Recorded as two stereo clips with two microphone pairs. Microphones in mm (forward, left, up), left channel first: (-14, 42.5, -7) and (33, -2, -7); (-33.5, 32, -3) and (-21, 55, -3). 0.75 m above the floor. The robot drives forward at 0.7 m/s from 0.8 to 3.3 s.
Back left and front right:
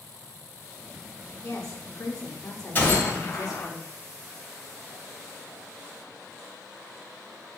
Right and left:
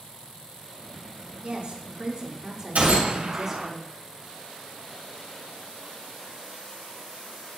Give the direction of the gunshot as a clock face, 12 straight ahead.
9 o'clock.